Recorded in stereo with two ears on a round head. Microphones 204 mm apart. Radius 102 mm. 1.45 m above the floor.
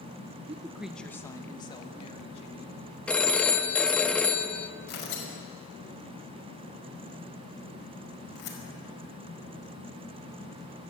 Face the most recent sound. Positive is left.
turn(degrees=50)  # may be behind; listen again after turning